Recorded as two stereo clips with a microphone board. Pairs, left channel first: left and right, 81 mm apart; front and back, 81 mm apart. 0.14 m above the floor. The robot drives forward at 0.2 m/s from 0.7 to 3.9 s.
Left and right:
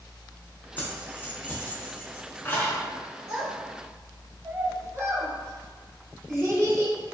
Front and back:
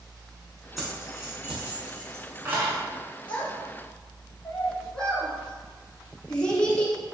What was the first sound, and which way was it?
Keys jangling, 95° left.